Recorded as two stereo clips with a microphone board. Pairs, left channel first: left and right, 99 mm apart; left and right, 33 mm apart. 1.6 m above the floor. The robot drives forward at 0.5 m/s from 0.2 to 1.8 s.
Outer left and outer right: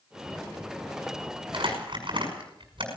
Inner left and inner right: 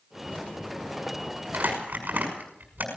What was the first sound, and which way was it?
Crumpling, 60° right (ahead or behind).